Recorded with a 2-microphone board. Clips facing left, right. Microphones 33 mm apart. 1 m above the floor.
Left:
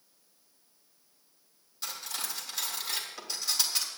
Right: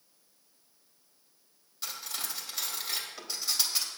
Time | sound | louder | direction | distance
1.8 | cutlery clinking | left 1 dB | centre (ahead or behind) | 3 m